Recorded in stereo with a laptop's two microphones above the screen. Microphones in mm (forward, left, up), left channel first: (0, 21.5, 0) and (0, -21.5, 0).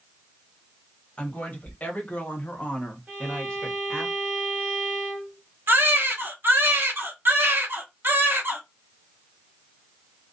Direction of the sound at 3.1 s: 35° right (ahead or behind).